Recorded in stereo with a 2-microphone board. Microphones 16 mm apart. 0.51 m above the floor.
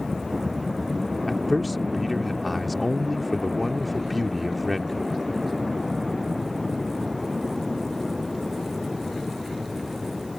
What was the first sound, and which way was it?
A man speaking, centre (ahead or behind).